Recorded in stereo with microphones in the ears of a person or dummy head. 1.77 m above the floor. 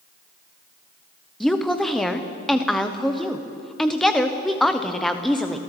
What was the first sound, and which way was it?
A woman speaking, centre (ahead or behind).